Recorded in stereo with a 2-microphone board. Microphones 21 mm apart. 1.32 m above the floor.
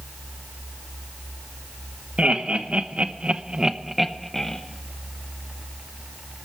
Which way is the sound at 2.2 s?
80° right.